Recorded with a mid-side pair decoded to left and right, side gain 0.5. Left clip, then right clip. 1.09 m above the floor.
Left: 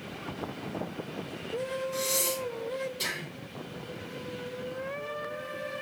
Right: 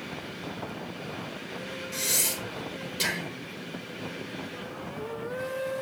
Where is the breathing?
60° right, 1.7 m.